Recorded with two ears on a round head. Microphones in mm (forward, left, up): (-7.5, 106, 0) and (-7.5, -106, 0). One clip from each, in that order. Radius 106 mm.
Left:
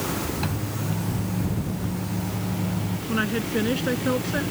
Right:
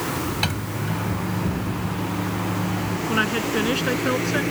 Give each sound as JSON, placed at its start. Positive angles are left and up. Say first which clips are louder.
{"t": 0.4, "sound": "a microwave", "louder": "right 4 dB", "side_deg": -75}
{"t": 3.1, "sound": "a woman speaking", "louder": "right 3 dB", "side_deg": -35}